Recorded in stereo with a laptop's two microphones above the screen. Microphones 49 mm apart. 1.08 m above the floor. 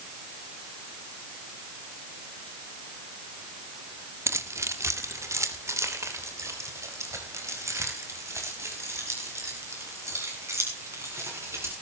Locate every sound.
4.3 s keys jangling: 70° right (ahead or behind), 1.4 m